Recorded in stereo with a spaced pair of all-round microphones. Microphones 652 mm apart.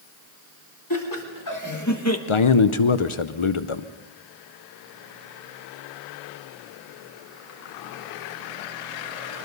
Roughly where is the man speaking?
Left.